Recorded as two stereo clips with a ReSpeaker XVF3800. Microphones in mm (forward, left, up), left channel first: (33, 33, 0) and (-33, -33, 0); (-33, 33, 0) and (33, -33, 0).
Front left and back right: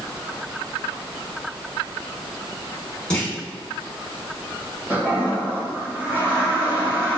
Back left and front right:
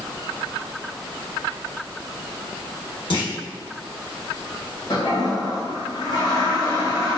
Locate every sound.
3.1 s a clunk: 125° left, 1.1 m
4.9 s a toilet flushing: 160° left, 1.1 m